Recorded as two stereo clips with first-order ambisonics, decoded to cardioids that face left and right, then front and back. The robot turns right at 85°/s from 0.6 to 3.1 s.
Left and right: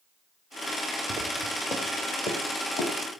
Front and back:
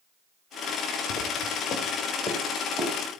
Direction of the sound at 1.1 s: 15° right.